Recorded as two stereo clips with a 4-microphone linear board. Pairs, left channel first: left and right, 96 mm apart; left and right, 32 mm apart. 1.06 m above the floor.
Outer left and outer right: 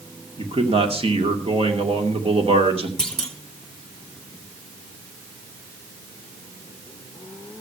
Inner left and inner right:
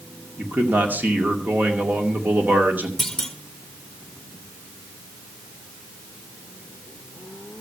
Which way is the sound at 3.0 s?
5° left (ahead or behind).